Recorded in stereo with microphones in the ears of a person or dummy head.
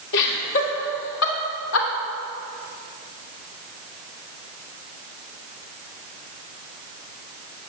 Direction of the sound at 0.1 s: 65° left (ahead or behind).